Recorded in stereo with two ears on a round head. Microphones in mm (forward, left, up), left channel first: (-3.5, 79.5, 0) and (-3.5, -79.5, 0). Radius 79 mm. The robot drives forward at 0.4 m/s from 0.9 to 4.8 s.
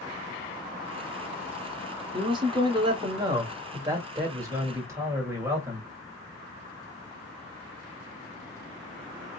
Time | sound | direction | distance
2.1 | a man speaking | 30° right (ahead or behind) | 1.3 m